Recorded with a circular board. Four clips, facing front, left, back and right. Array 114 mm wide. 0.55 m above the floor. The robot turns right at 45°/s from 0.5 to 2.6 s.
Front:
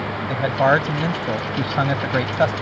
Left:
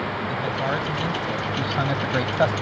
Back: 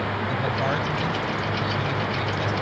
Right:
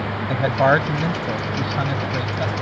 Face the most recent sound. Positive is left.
turn(degrees=35)